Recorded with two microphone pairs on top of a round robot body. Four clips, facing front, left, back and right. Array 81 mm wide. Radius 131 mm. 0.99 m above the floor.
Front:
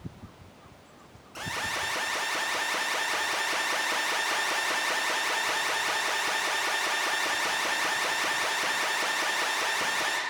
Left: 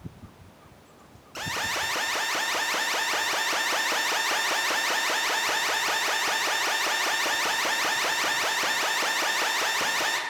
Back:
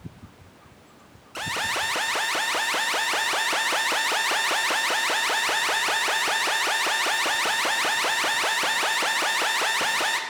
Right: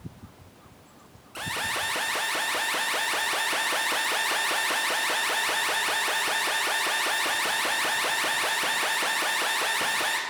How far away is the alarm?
About 1.2 m.